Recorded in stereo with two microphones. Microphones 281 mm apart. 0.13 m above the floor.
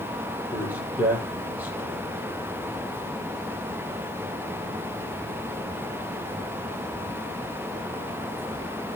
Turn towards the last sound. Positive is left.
turn(degrees=-5)  # may be behind; listen again after turning